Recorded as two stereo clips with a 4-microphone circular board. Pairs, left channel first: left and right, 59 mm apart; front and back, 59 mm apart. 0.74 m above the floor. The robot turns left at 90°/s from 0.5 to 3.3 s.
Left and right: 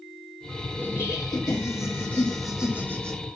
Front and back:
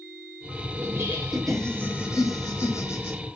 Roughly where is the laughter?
Behind left.